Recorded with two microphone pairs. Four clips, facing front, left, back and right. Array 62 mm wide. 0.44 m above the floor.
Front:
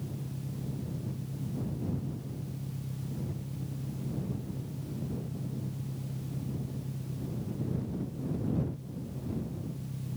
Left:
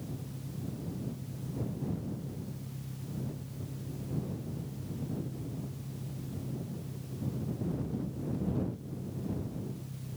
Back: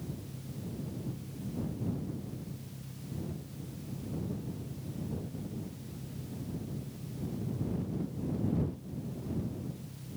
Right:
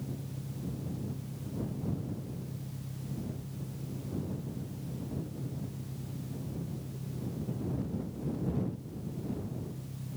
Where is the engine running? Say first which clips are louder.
Right 1 dB, front 3 dB; 15° right.